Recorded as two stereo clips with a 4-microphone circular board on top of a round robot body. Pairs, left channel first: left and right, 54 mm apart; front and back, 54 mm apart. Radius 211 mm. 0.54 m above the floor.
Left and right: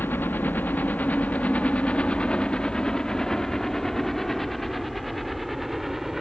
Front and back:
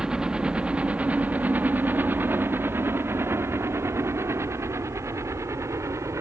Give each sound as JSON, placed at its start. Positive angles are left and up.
{"t": 0.0, "sound": "a helicopter", "azimuth_deg": 110}